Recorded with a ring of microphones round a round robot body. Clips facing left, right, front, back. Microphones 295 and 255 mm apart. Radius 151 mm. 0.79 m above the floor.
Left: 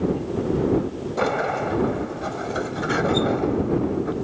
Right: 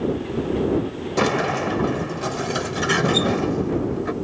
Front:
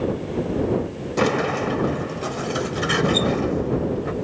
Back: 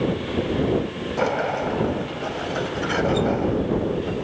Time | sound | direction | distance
1.2 | a sliding door | 50° right | ?